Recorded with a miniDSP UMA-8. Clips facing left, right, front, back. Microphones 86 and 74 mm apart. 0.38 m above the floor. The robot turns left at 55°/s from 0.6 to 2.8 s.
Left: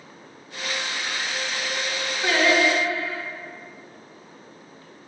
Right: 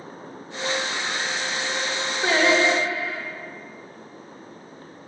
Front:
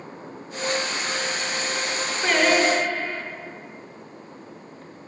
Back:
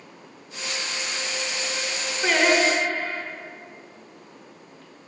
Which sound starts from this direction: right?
Singing, at 2.2 s.